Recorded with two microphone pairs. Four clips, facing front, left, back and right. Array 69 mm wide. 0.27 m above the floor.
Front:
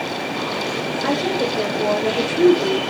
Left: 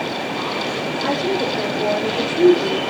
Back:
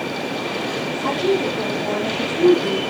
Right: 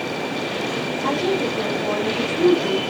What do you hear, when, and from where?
1.0 s a woman speaking: 20° left, 4 m; by 2.8 s straight ahead, 5.5 m